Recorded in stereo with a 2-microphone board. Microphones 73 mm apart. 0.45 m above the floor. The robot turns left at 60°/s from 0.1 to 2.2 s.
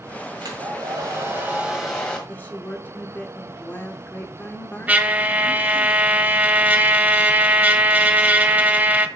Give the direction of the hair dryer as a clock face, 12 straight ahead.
3 o'clock.